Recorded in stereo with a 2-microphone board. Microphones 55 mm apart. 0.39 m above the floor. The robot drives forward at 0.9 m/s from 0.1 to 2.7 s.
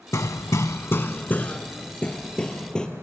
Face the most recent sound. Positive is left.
turn(degrees=15)  # may be behind; listen again after turning